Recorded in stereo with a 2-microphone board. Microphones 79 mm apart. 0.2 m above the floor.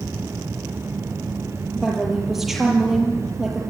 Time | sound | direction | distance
1.8 | a woman speaking | 5° right (ahead or behind) | 6 m